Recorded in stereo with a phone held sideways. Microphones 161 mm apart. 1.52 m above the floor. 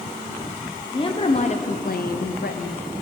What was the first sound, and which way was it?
A woman speaking, 30° left (ahead or behind).